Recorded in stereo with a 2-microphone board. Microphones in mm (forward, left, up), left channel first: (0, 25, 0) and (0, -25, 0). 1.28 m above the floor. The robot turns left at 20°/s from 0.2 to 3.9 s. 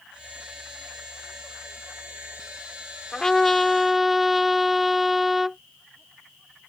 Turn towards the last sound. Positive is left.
turn(degrees=-5)  # may be behind; listen again after turning